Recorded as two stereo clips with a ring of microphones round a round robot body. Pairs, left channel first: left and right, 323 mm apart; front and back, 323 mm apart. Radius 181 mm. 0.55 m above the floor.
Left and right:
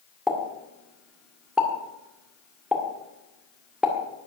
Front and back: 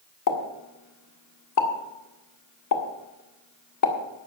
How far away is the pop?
About 1.8 m.